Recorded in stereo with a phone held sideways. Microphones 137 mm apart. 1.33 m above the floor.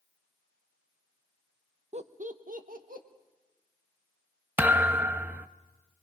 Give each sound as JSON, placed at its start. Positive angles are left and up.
{"t": 1.9, "sound": "laughter", "side_deg": -50, "distance_m": 0.8}
{"t": 4.6, "sound": "a thud", "side_deg": -15, "distance_m": 0.6}